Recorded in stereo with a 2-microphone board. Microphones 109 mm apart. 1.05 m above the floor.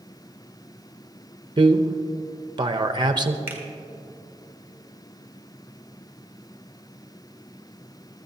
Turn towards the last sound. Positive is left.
turn(degrees=-20)  # may be behind; listen again after turning